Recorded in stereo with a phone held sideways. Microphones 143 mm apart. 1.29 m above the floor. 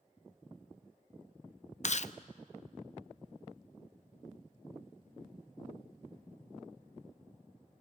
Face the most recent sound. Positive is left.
turn(degrees=55)  # may be behind; listen again after turning